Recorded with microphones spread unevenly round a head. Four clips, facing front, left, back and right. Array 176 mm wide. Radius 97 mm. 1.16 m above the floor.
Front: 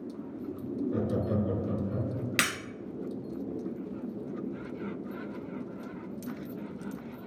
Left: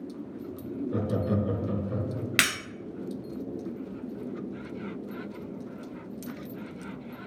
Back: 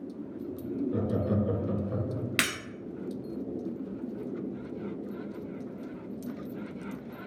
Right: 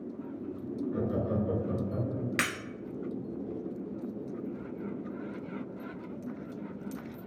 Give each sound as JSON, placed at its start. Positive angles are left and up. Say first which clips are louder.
{"t": 0.9, "sound": "laughter", "louder": "left 3 dB, even", "azimuth_deg": 45, "distance_m": 0.6}
{"t": 2.4, "sound": "breaking glass", "louder": "left 6 dB, front 1 dB", "azimuth_deg": 80, "distance_m": 1.6}